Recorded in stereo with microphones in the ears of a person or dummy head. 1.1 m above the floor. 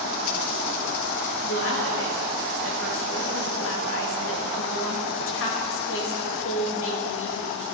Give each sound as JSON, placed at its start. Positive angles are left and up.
{"t": 1.4, "sound": "a woman speaking", "side_deg": 65, "distance_m": 2.0}